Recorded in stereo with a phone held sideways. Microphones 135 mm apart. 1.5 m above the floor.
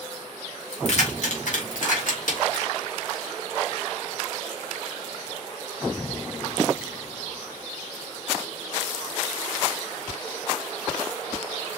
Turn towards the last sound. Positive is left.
turn(degrees=80)